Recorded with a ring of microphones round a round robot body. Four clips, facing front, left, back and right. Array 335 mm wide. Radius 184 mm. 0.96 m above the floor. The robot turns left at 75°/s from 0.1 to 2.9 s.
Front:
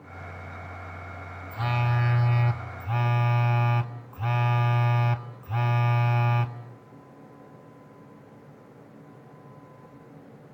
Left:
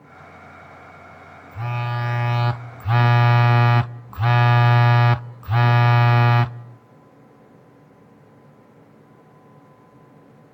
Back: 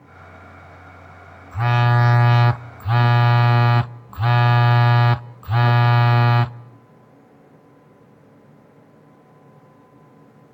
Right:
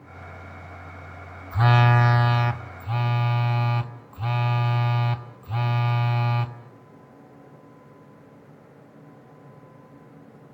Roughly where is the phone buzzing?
Behind right.